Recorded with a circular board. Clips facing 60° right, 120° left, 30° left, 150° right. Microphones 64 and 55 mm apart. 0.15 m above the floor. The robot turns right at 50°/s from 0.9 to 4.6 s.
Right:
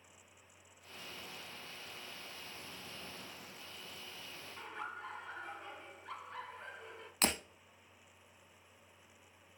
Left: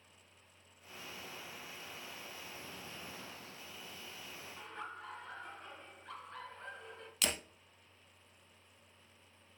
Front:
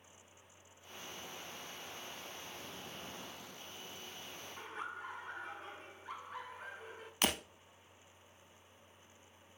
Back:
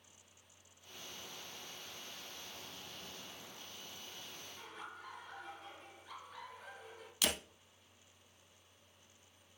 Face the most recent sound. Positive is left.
turn(degrees=-10)